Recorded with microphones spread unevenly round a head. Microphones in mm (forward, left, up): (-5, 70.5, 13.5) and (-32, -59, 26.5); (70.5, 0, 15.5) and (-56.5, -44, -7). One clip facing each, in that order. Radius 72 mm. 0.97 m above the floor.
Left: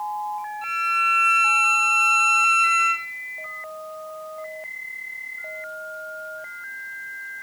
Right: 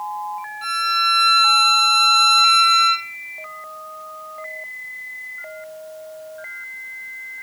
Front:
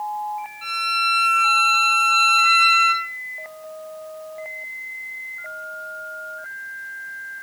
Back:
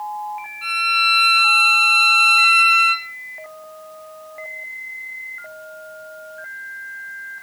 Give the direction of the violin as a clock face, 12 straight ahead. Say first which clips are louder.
Right 3 dB, back 2 dB; 2 o'clock.